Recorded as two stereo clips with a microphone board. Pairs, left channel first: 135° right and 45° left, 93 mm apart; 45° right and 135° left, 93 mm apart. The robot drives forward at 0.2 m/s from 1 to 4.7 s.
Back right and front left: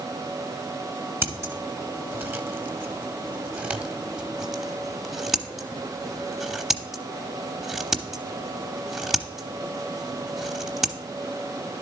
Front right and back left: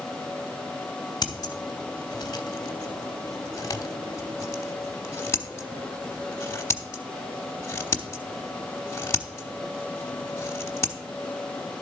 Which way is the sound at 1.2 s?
10° right.